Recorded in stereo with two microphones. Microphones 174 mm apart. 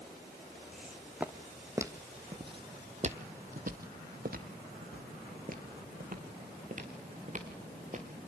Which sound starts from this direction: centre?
Footsteps, at 0.7 s.